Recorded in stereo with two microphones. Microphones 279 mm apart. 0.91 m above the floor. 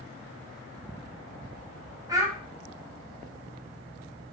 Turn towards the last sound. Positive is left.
turn(degrees=-10)  # may be behind; listen again after turning